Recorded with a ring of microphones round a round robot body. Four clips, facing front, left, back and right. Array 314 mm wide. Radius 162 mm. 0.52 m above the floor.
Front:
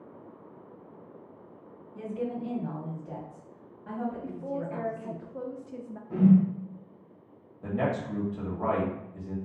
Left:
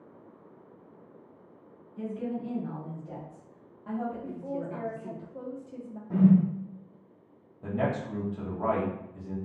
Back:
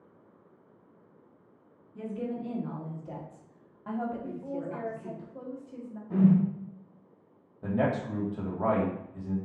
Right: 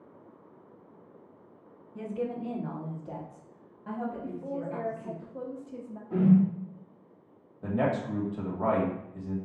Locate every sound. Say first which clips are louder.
1.9 s a woman speaking: right 1 dB, front 1 dB; 90° right, 1.4 m; by 5.2 s 155° left, 1.5 m
4.2 s a woman speaking: even, front 1 dB; 10° right, 0.7 m
6.1 s a whoosh: left 1 dB, front 2 dB; 105° left, 1.4 m
7.6 s a man speaking: right 2 dB, back 1 dB; 140° right, 1.2 m